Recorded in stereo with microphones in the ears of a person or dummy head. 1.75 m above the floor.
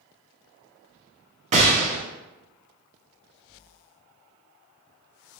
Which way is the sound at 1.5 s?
35° right (ahead or behind).